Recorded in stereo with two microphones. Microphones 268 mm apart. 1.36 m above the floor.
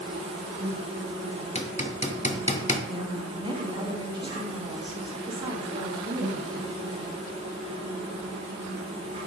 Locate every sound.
0.0 s an insect: 20° right (ahead or behind), 1.8 m
1.6 s hammering: 25° left (ahead or behind), 0.6 m
2.9 s a woman speaking: 15° right (ahead or behind), 0.8 m